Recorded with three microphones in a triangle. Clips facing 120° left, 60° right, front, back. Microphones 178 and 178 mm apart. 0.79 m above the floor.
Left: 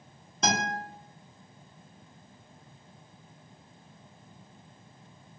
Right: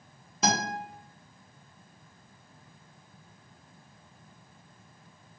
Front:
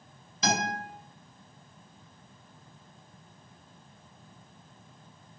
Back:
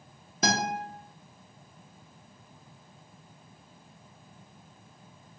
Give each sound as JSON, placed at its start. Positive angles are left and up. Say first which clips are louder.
{"t": 0.4, "sound": "a guitar", "louder": "right 1 dB, back 1 dB", "azimuth_deg": -145, "distance_m": 0.8}